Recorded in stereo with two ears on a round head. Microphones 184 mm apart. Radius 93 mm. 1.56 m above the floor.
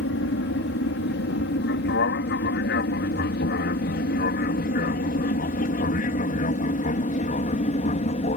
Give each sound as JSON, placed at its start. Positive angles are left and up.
{"t": 0.0, "sound": "an aircraft", "side_deg": 60}